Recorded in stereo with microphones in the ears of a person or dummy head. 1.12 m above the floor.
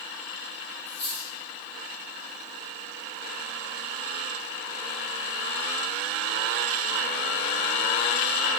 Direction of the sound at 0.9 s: 40° left (ahead or behind).